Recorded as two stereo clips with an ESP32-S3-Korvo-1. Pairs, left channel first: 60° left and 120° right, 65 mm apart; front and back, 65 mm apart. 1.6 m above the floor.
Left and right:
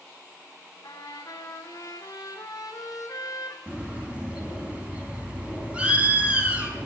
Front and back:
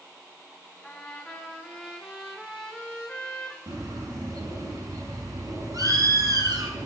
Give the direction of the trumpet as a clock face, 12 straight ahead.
9 o'clock.